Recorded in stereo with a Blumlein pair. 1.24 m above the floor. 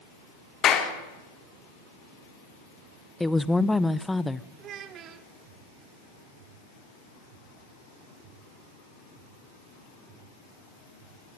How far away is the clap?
About 2.5 m.